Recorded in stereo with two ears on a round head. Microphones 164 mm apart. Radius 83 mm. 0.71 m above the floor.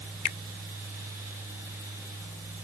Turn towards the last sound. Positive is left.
turn(degrees=55)  # may be behind; listen again after turning